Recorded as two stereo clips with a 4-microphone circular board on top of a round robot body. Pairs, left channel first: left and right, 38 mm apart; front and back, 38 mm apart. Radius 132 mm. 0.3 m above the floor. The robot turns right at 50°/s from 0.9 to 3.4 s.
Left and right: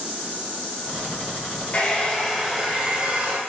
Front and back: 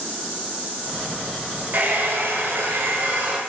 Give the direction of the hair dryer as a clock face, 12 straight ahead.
7 o'clock.